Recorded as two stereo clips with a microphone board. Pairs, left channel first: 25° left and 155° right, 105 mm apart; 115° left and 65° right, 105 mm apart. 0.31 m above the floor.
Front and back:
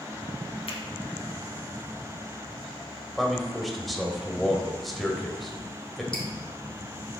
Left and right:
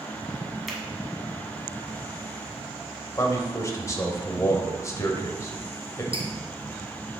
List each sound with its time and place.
0.7 s a finger snap: 20° left, 1.8 m
3.2 s a man speaking: 110° left, 1.2 m
6.1 s dripping: 60° right, 2.5 m